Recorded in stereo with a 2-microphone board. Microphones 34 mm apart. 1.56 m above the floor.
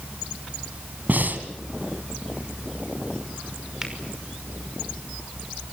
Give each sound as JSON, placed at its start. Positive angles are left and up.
{"t": 1.1, "sound": "breathing", "side_deg": -60, "distance_m": 2.5}
{"t": 3.8, "sound": "a finger snap", "side_deg": -15, "distance_m": 5.5}